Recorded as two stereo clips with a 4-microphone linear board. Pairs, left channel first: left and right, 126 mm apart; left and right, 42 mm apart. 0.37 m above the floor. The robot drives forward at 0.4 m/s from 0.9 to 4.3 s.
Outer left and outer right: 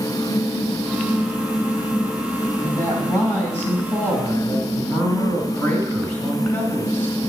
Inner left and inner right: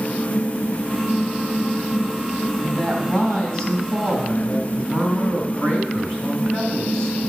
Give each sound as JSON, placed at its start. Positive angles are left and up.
{"t": 2.6, "sound": "a woman speaking", "side_deg": 20, "distance_m": 2.5}